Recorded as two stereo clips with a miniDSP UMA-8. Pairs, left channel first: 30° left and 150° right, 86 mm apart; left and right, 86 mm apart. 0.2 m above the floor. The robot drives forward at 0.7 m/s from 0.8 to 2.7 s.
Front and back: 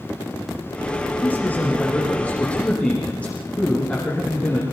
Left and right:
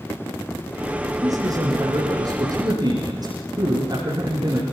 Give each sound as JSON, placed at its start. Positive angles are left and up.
{"t": 1.2, "sound": "a man speaking", "azimuth_deg": -40, "distance_m": 8.5}